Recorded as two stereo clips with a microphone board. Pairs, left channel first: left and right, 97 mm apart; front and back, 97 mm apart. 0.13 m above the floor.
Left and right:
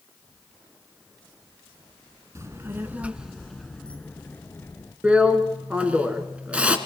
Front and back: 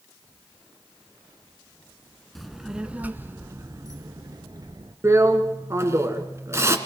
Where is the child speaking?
85° right, 0.9 m; by 4.9 s 150° left, 1.4 m.